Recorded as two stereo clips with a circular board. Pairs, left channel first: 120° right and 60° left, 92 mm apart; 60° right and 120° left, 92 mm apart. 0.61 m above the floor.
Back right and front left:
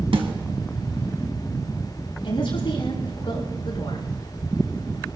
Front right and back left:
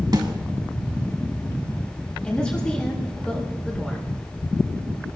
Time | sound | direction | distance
0.1 | a snare drum | 75° left | 1.4 m
2.2 | a woman speaking | 140° right | 7 m